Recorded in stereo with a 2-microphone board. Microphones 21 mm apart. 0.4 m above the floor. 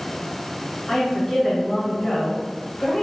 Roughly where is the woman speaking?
Left.